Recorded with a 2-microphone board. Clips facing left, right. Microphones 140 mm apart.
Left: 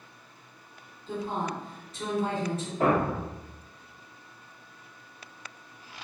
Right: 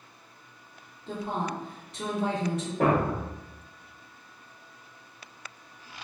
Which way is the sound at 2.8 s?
60° right (ahead or behind).